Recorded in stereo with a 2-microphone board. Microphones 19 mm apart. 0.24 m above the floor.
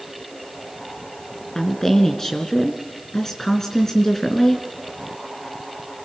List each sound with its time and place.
1.6 s a woman speaking: 30° left (ahead or behind), 3 m